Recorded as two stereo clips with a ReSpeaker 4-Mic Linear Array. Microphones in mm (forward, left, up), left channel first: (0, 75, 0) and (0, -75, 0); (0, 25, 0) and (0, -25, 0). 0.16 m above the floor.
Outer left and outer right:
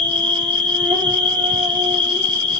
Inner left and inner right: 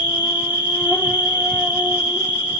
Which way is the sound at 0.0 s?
35° right (ahead or behind).